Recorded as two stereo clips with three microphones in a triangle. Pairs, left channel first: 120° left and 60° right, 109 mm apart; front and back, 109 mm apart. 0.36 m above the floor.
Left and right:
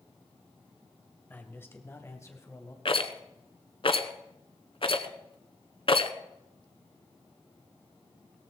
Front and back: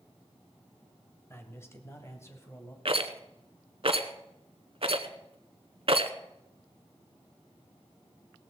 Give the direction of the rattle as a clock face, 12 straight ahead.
7 o'clock.